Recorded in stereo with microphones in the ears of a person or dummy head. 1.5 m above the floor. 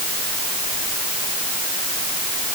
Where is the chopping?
I don't hear chopping.